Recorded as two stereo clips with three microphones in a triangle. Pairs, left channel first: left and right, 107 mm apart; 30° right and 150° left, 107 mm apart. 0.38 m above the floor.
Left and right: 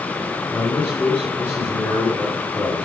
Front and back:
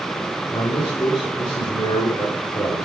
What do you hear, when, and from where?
0.5 s a man speaking: 15° left, 6.5 m